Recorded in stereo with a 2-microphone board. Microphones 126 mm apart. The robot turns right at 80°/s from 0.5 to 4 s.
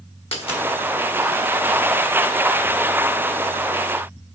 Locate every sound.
0.3 s a dropped coin: 50° left (ahead or behind), 1.5 m; by 0.6 s 45° left (ahead or behind), 1.5 m